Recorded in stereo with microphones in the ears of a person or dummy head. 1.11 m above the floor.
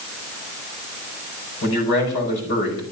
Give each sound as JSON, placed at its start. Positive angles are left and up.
{"t": 1.6, "sound": "a man speaking", "side_deg": 65, "distance_m": 5.5}